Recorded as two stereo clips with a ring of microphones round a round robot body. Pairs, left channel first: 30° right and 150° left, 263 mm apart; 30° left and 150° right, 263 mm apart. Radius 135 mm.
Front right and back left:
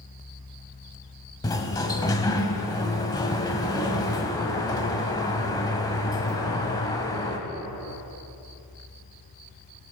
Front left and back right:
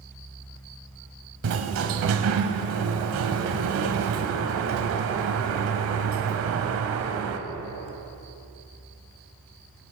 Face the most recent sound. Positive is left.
turn(degrees=-105)